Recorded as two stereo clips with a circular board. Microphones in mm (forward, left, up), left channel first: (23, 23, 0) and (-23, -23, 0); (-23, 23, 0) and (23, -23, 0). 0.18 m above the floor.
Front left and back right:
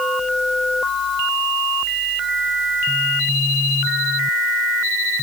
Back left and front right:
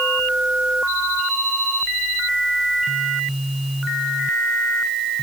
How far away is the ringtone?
I don't hear a ringtone.